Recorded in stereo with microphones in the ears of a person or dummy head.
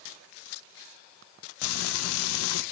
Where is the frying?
90° left, 0.7 m.